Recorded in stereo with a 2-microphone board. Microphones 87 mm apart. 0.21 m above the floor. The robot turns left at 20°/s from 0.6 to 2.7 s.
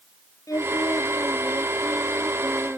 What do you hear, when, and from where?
0.5 s singing: 45° left; by 2.8 s straight ahead